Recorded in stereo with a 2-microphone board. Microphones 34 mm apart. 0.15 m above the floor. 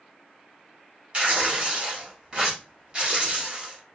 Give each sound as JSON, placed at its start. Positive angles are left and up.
{"t": 1.1, "sound": "tearing paper", "side_deg": -30, "distance_m": 1.2}